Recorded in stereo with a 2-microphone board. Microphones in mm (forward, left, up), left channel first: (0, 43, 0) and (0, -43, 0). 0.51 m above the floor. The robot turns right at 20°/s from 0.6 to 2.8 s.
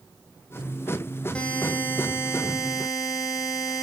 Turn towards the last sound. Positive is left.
turn(degrees=45)  # may be behind; listen again after turning